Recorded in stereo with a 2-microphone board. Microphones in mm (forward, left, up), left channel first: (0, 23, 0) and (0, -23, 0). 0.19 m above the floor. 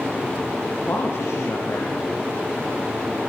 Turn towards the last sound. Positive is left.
turn(degrees=80)